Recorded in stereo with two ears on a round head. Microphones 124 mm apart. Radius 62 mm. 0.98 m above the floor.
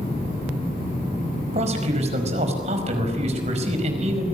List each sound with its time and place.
1.5 s a man speaking: 45° right (ahead or behind), 5 m